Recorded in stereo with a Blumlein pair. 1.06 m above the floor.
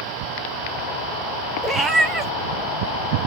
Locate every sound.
1.6 s a cat meowing: 10° right, 0.9 m